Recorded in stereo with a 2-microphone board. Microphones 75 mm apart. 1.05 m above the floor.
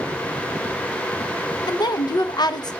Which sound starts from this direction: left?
A woman speaking, at 1.7 s.